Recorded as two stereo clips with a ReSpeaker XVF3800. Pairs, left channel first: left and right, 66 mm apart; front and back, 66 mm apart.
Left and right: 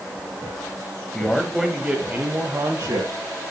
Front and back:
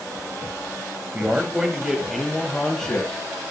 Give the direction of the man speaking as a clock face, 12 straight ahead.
7 o'clock.